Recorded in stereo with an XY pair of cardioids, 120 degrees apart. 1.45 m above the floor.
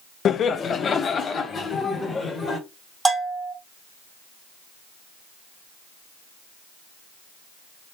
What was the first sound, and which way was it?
Laughter, 50° left.